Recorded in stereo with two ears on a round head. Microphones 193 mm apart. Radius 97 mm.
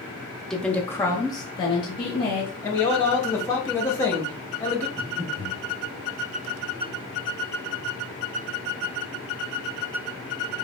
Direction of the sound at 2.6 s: 10° left (ahead or behind).